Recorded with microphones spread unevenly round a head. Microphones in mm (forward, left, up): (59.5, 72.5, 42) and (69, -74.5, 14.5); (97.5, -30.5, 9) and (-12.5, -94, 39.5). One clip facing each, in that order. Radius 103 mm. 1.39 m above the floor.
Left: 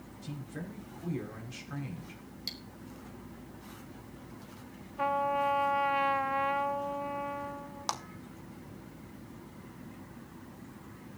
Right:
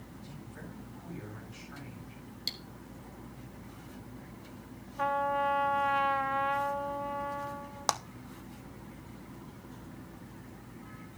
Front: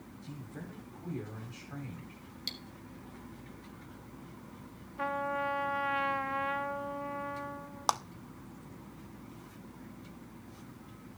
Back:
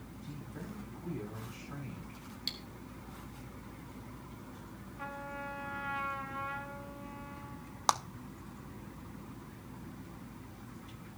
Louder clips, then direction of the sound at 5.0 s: Even, front 10 dB; 10° left.